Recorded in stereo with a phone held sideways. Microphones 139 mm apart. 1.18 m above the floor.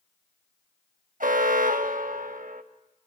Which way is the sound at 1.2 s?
75° right (ahead or behind).